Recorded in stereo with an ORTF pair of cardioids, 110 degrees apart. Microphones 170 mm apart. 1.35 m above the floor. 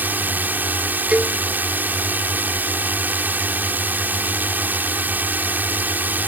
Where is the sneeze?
I don't hear a sneeze.